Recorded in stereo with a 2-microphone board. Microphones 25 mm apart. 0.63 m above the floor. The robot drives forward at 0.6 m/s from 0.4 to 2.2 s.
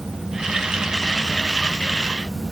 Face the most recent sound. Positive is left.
No sound to turn to.